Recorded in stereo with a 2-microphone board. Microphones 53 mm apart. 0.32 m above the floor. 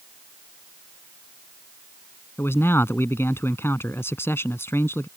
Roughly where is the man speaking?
Left.